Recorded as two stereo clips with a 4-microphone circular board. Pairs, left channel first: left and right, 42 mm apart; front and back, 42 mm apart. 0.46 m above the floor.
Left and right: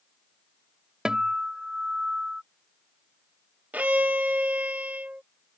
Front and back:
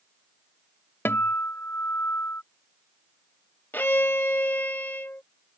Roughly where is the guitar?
Ahead.